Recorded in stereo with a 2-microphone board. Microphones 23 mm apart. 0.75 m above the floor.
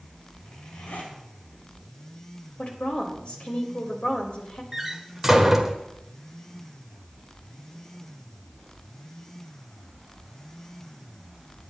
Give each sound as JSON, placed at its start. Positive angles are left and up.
{"t": 0.4, "sound": "a zipper", "side_deg": 85, "distance_m": 6.0}
{"t": 2.6, "sound": "a woman speaking", "side_deg": 45, "distance_m": 3.5}
{"t": 4.7, "sound": "a door slam", "side_deg": -10, "distance_m": 1.6}